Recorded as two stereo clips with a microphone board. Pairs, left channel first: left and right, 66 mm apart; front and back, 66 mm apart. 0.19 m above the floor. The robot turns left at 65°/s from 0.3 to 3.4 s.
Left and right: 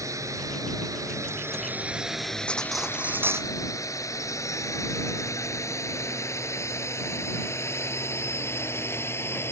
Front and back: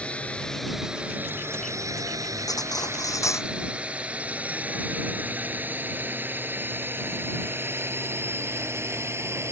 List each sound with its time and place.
0.0 s a drone: 70° right; by 9.5 s 140° left
2.5 s cutlery clinking: 15° left; by 3.5 s 45° right